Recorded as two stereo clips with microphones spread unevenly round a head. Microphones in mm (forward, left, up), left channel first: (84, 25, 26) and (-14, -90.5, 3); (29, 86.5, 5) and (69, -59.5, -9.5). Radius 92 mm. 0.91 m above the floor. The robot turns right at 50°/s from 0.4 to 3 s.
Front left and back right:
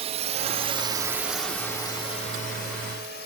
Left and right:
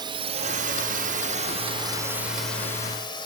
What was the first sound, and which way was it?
A drone, 125° right.